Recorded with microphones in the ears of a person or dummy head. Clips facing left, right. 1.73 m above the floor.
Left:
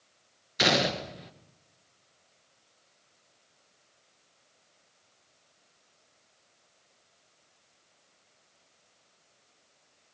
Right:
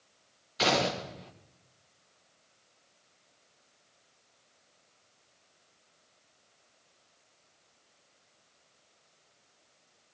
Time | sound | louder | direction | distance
0.6 | a gunshot | left 1 dB | 20° left (ahead or behind) | 2.5 m